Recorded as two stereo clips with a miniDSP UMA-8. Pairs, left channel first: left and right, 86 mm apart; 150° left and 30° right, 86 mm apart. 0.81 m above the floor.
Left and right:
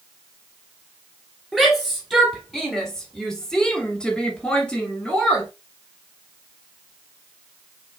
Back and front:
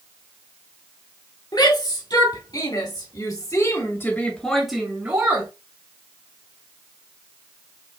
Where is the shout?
175° left, 2.5 m; by 5.5 s 15° left, 1.3 m.